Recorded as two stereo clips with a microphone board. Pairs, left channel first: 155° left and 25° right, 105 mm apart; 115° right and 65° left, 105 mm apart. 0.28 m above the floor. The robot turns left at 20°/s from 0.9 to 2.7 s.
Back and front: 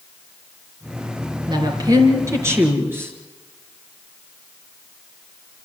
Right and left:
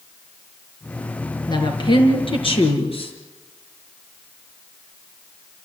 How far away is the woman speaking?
About 4 m.